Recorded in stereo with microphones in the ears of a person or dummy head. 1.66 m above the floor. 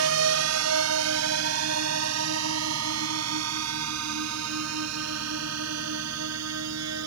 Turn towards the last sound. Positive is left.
turn(degrees=-85)